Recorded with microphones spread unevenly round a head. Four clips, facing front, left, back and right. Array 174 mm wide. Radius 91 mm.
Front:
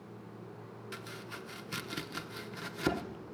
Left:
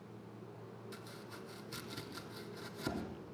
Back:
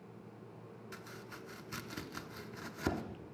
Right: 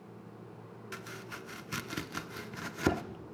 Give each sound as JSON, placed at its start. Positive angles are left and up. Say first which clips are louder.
{"t": 0.9, "sound": "chopping", "louder": "right 5 dB, front 5 dB", "azimuth_deg": -65, "distance_m": 1.3}